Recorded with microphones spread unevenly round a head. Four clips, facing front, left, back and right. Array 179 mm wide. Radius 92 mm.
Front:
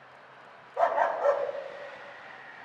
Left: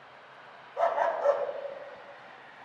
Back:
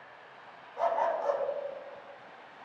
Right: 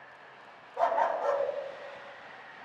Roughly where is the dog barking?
Ahead.